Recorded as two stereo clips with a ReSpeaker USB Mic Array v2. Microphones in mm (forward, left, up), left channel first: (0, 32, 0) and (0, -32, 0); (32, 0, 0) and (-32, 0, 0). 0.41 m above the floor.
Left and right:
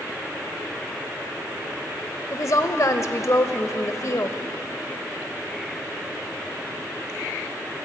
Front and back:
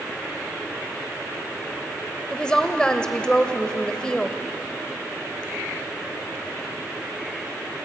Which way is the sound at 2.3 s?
75° left.